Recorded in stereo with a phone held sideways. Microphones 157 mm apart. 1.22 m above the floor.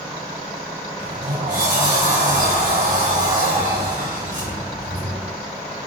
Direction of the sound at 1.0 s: 85° right.